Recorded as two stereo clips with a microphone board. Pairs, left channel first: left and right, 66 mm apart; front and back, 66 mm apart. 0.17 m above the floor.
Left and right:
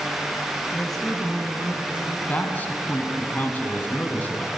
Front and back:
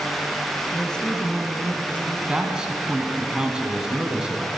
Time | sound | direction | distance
0.7 | a woman speaking | 30° left | 1.0 m
2.3 | a man speaking | 115° left | 1.2 m